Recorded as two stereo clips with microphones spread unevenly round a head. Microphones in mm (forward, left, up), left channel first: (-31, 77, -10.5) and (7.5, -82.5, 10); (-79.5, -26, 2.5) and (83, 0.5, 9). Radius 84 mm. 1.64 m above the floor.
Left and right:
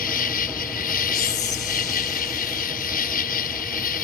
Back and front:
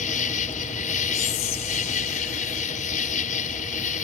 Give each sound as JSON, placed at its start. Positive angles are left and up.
{"t": 0.0, "sound": "an insect", "azimuth_deg": 140}
{"t": 1.1, "sound": "whispering", "azimuth_deg": 155}